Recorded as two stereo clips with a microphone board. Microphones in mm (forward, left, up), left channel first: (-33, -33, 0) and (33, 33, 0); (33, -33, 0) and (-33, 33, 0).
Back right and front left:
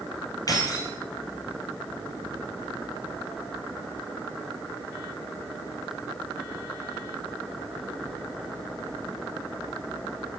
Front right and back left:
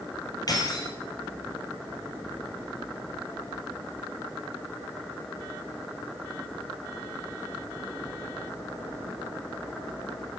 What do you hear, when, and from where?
0.5 s keys jangling: 90° right, 2.5 m